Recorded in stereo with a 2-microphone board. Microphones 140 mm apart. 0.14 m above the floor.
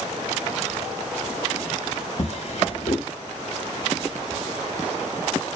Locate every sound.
2.2 s a drawer: 50° left (ahead or behind), 1.0 m